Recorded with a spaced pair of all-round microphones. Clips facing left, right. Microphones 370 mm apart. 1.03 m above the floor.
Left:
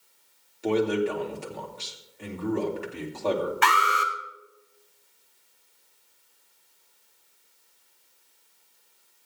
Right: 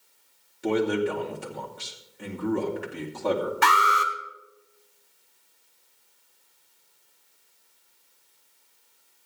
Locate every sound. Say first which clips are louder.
0.6 s a man speaking: even; 25° right (ahead or behind), 2.5 m
3.6 s an alarm: right 1 dB; 60° right (ahead or behind), 1.7 m